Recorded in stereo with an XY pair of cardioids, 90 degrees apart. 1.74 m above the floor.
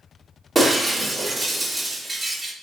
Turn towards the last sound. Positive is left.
turn(degrees=-25)